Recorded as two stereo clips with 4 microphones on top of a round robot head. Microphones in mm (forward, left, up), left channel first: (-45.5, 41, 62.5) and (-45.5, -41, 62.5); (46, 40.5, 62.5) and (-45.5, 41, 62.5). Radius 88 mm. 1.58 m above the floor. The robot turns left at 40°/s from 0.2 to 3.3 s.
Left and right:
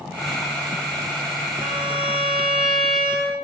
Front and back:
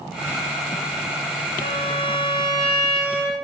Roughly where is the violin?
Ahead right.